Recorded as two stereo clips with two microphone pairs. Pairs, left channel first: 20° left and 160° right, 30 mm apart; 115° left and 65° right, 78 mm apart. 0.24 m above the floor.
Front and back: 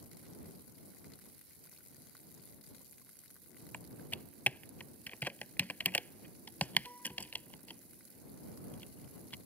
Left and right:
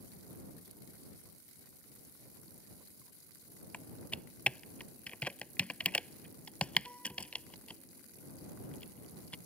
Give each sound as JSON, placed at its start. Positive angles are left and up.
{"t": 3.7, "sound": "typing on a keyboard", "azimuth_deg": 45}